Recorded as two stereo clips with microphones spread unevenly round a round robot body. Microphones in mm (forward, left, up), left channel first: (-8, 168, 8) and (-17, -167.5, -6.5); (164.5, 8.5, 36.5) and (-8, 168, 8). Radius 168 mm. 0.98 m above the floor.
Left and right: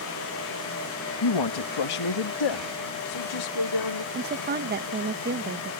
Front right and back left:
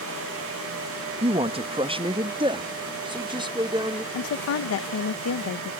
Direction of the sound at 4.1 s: 35° right.